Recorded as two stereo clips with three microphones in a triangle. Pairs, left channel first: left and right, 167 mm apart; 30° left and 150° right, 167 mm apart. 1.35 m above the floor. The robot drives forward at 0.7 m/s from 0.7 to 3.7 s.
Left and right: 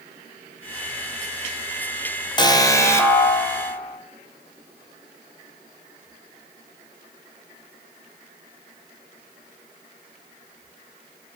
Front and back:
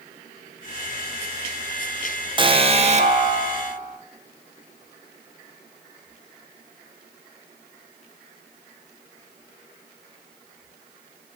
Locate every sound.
2.4 s an alarm: 155° left, 0.6 m; by 4.0 s 170° left, 1.5 m